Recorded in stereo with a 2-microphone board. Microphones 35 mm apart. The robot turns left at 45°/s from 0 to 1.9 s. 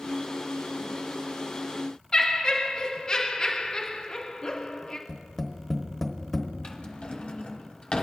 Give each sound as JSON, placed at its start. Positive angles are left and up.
{"t": 2.1, "sound": "laughter", "side_deg": 20, "distance_m": 1.3}
{"t": 5.1, "sound": "tapping", "side_deg": 5, "distance_m": 1.1}
{"t": 6.6, "sound": "a drawer", "side_deg": 25, "distance_m": 0.9}